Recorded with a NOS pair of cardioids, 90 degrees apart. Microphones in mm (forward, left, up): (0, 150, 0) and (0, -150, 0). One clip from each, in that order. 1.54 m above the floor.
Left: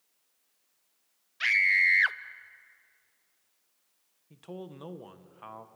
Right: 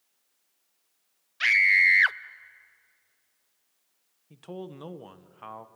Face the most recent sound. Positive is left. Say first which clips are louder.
# right 3 dB
turn(degrees=-15)